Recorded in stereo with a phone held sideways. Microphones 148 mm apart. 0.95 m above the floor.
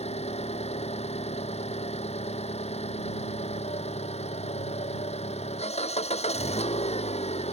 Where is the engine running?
45° left (ahead or behind).